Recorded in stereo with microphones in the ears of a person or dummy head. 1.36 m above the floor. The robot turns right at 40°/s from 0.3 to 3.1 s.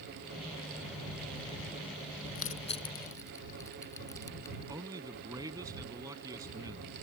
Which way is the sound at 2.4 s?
45° left (ahead or behind).